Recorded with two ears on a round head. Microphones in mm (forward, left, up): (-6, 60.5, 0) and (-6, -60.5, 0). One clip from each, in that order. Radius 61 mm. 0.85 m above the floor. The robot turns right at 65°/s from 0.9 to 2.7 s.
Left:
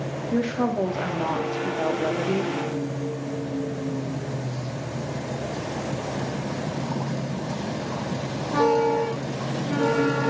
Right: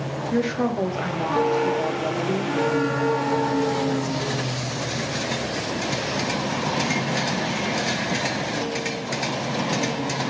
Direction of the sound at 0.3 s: 30° right.